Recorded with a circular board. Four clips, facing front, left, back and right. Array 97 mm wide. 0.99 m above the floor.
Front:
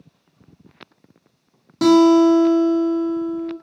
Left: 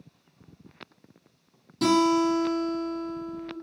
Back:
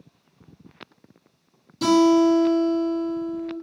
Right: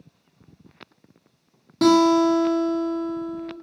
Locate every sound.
1.8 s a guitar: 45° right, 0.8 m